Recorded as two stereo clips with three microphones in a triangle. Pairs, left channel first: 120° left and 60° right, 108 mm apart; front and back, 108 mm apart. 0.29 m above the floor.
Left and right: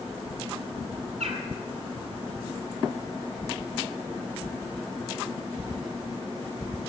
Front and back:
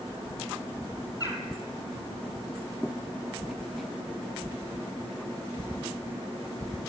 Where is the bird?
55° right, 1.3 m.